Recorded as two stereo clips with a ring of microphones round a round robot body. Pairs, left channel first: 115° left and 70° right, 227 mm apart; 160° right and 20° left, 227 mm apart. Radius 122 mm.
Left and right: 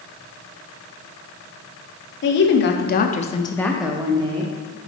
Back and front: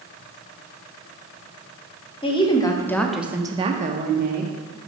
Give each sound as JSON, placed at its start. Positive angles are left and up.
{"t": 2.2, "sound": "a woman speaking", "azimuth_deg": 140, "distance_m": 1.0}